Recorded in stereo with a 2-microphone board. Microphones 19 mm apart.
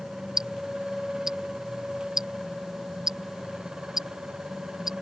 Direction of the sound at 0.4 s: 25° right (ahead or behind).